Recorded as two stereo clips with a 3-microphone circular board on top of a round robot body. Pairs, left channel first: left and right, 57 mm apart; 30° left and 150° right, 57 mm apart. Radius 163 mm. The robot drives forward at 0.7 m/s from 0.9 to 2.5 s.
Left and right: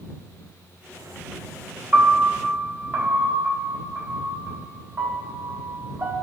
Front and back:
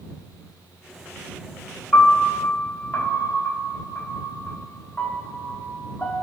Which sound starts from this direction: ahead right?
A piano, at 1.9 s.